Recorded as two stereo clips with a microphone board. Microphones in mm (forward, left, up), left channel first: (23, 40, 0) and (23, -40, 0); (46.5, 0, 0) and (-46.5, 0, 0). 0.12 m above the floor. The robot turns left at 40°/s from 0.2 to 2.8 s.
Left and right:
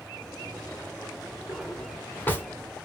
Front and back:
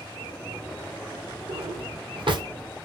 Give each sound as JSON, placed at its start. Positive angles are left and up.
{"t": 1.5, "sound": "a drawer", "azimuth_deg": -175, "distance_m": 1.3}